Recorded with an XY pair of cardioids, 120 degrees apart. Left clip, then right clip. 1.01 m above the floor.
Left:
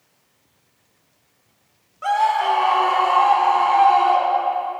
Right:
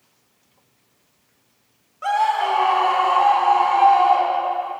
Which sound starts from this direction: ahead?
A scream, at 2.0 s.